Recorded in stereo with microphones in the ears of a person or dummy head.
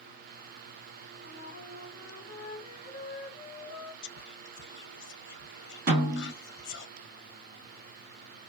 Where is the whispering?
55° left (ahead or behind), 0.7 m.